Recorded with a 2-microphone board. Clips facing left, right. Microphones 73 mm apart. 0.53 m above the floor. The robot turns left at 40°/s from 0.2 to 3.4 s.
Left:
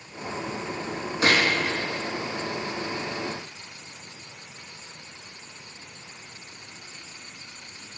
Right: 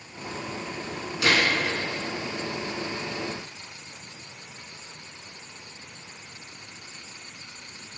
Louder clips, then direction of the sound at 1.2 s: Left 1 dB; 35° left (ahead or behind).